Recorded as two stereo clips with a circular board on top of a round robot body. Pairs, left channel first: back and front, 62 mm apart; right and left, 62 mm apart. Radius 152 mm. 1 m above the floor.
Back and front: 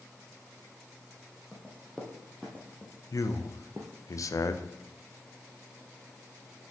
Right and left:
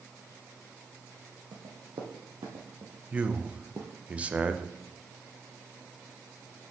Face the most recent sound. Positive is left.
turn(degrees=155)